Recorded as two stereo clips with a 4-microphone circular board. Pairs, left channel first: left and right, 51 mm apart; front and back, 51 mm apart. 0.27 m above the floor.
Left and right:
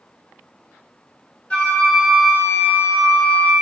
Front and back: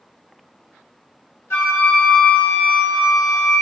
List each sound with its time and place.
1.5 s a flute: 30° left, 3.5 m